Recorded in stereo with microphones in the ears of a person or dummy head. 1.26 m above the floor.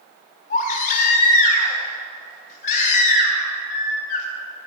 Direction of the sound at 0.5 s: 45° left (ahead or behind).